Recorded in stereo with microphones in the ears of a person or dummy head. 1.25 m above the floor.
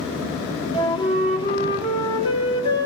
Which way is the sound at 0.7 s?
25° left (ahead or behind).